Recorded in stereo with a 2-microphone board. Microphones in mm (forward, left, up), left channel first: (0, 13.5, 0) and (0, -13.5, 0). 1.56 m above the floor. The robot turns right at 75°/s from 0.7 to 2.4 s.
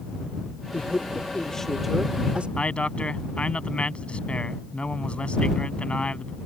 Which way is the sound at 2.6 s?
45° left (ahead or behind).